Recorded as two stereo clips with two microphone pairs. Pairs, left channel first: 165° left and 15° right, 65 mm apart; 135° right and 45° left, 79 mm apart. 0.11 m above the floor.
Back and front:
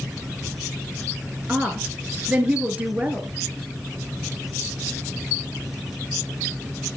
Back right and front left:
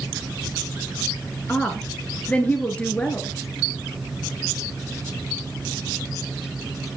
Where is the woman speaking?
70° right, 1.4 m.